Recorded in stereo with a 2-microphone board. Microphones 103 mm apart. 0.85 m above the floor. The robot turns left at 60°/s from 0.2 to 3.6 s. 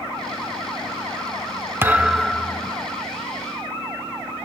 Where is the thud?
155° right, 0.7 m; by 2.7 s 150° left, 0.7 m.